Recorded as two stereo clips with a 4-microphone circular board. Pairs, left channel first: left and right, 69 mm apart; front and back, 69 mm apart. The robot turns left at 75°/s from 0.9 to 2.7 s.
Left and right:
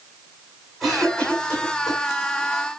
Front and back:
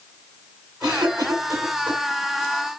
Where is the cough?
170° right, 9 m; by 2.0 s 110° left, 9 m.